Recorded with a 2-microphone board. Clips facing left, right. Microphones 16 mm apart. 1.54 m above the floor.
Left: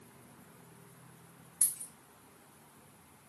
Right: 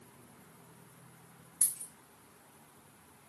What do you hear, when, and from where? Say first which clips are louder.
1.6 s a dropped coin: even; 5° right (ahead or behind), 2 m